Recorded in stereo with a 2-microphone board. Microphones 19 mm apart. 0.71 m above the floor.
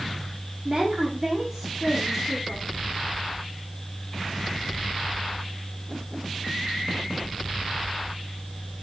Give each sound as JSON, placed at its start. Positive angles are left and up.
{"t": 0.7, "sound": "a woman speaking", "side_deg": -35, "distance_m": 1.9}